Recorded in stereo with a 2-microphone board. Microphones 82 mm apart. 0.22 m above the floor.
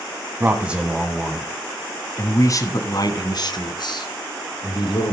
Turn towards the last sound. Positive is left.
turn(degrees=65)  # may be behind; listen again after turning